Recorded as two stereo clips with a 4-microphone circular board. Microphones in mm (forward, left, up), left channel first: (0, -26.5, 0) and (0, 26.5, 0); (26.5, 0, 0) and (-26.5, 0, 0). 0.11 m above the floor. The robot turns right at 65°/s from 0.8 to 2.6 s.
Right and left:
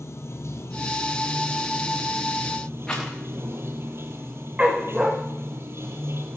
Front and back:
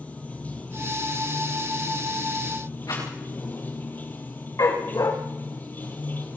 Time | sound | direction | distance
0.0 | running water | 65° right | 3 m
2.9 | a rattle | 15° right | 8 m
4.6 | a dog barking | 20° left | 4 m